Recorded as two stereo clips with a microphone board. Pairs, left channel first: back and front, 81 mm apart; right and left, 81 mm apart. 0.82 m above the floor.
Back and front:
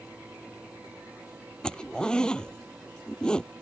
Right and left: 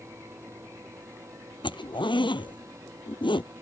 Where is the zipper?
100° right.